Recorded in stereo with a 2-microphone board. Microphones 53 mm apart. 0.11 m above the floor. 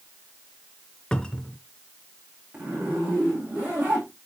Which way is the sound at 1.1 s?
15° left (ahead or behind).